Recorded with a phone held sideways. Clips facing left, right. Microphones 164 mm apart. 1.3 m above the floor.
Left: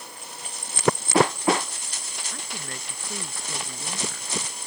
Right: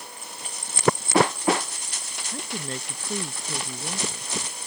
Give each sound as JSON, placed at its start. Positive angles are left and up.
{"t": 2.3, "sound": "a woman speaking", "side_deg": -30}